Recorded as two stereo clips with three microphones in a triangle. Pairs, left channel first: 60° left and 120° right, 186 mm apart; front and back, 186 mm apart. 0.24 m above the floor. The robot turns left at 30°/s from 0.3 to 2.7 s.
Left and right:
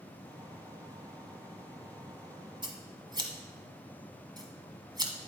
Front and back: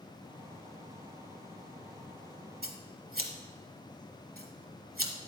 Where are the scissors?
175° right, 1.0 m; by 5.1 s straight behind, 1.0 m.